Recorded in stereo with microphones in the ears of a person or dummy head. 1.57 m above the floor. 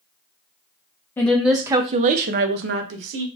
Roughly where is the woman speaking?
Centre.